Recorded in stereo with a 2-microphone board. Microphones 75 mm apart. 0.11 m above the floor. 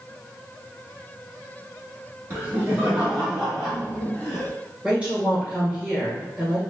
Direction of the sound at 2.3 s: 30° right (ahead or behind).